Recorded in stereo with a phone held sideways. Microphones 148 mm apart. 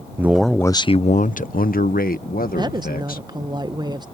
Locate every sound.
0.2 s a man speaking: 15° right (ahead or behind); by 3.3 s 75° left (ahead or behind)
2.5 s a woman speaking: 30° right (ahead or behind)